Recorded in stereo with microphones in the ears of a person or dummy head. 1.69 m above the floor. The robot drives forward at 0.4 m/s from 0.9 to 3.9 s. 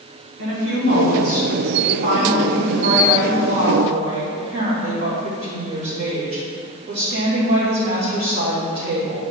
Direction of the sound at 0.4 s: 70° right (ahead or behind).